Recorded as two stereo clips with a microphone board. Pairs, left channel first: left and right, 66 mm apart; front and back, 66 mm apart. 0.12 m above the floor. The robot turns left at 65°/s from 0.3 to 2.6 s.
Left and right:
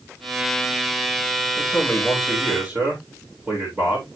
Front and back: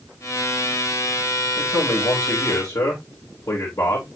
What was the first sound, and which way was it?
A man speaking, 45° left.